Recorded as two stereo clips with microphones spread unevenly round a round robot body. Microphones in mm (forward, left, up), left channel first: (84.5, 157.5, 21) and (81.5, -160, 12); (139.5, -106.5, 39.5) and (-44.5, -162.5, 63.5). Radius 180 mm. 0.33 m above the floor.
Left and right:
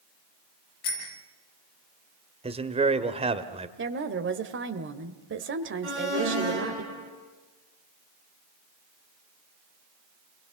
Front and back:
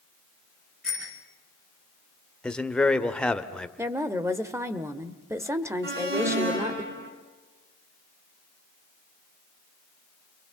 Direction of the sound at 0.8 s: 105° left.